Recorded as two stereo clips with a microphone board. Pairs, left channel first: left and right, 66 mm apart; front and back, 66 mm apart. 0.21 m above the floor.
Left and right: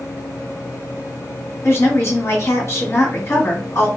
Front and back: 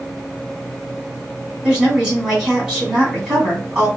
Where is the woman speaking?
105° left, 1.8 m.